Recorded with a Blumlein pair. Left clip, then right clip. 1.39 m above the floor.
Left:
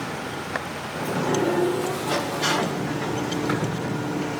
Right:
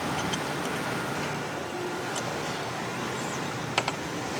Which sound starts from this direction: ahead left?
A sliding door, at 0.9 s.